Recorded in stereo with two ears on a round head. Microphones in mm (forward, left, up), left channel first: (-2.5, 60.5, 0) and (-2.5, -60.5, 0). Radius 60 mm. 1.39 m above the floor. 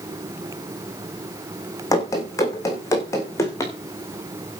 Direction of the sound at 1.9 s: 25° left (ahead or behind).